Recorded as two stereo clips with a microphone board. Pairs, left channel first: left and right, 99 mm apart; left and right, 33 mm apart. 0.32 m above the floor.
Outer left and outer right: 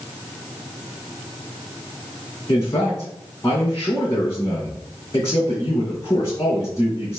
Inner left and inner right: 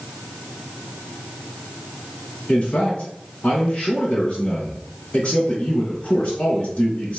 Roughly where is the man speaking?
Left.